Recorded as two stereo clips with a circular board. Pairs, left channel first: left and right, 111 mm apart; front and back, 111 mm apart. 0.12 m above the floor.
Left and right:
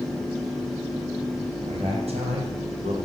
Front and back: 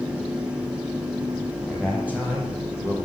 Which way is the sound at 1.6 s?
100° right.